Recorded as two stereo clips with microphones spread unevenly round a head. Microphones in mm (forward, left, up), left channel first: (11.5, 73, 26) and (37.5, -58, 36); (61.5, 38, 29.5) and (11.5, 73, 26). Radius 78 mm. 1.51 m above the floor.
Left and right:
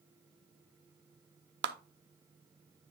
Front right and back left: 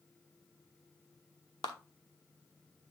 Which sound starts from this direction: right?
A clap, at 1.6 s.